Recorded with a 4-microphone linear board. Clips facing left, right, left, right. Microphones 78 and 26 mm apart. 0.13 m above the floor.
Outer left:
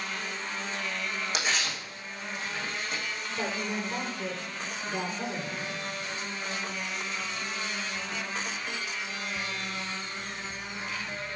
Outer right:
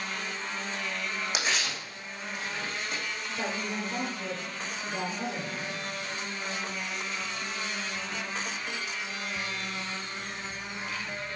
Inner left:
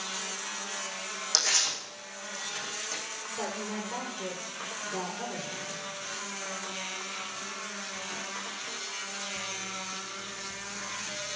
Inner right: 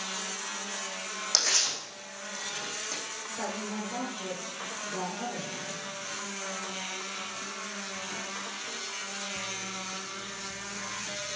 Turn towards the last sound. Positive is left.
turn(degrees=25)  # may be behind; listen again after turning